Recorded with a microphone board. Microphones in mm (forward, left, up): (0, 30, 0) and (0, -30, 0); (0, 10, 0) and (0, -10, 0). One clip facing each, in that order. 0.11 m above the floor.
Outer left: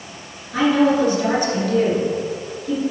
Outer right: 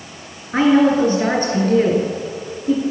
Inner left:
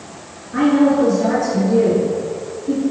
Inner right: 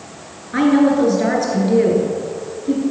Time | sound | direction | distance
0.5 | a woman speaking | 40° right (ahead or behind) | 1.9 m